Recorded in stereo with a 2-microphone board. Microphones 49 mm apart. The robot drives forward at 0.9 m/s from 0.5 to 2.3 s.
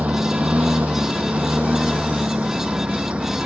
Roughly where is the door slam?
No door slam in this recording.